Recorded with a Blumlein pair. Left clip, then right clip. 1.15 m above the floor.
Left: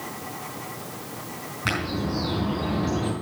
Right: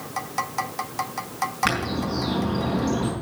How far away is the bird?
About 5 m.